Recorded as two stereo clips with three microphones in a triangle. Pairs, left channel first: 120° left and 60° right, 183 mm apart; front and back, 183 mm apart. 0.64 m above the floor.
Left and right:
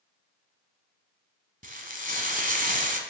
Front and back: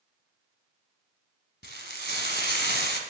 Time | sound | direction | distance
1.6 | frying | 20° right | 1.4 m